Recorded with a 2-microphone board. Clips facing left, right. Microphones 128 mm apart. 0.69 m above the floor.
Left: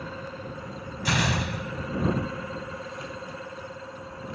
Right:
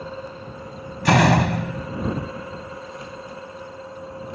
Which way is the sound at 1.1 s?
75° right (ahead or behind).